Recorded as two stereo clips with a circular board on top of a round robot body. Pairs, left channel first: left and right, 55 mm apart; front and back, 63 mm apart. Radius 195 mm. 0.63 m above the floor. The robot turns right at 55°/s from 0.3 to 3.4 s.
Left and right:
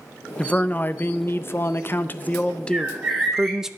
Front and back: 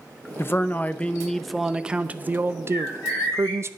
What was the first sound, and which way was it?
A man speaking, 30° left.